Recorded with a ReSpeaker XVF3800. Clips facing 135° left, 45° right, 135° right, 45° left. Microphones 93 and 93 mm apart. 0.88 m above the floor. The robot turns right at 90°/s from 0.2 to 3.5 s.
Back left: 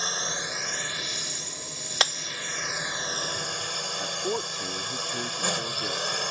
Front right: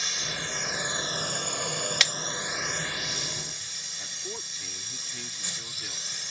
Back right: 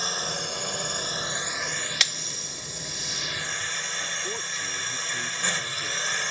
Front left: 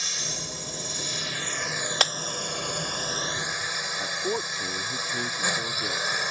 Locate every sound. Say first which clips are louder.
0.0 s a drone: back left 4 dB, back right 6 dB; 175° right; by 6.3 s 120° left
2.0 s breaking glass: back left 8 dB, front left 8 dB; 85° left; by 2.1 s 100° left
4.0 s a man speaking: back left 11 dB, front left 5 dB; 95° left